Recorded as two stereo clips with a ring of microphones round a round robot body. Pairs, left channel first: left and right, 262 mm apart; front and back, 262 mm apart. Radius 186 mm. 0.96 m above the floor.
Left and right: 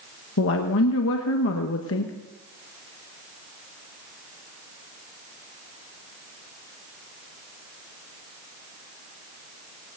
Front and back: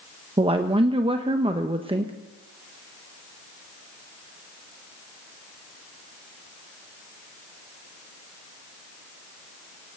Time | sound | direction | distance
0.4 | a woman speaking | 115° left | 1.1 m